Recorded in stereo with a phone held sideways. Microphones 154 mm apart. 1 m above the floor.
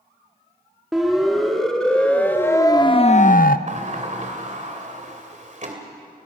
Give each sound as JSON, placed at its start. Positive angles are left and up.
{"t": 0.9, "sound": "a siren", "side_deg": 0, "distance_m": 2.5}
{"t": 3.7, "sound": "a sliding door", "side_deg": -50, "distance_m": 2.0}